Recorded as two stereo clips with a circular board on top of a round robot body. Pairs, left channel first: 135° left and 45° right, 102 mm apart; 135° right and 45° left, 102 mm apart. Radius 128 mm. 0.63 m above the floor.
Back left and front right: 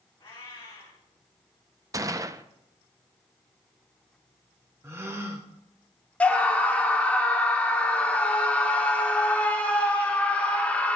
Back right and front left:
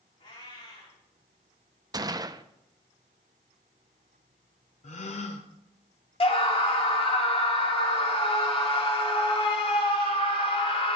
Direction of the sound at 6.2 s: 150° right.